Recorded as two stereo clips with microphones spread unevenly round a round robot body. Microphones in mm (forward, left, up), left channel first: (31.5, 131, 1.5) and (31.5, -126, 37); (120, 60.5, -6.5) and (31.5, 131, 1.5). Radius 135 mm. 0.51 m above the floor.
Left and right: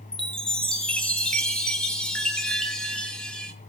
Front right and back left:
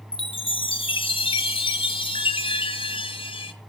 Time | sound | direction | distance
0.1 | a chime | 5° left | 1.5 m